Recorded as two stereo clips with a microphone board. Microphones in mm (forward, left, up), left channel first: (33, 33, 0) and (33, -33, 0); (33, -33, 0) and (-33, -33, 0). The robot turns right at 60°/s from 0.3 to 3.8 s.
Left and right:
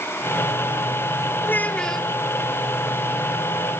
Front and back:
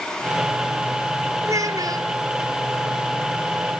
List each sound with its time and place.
1.4 s a child speaking: 145° left, 1.2 m; by 2.1 s 175° right, 1.2 m